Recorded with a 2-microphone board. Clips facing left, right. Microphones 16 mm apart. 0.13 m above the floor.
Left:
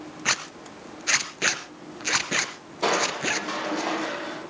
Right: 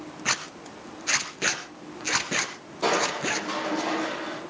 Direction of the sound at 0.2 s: 20° left (ahead or behind).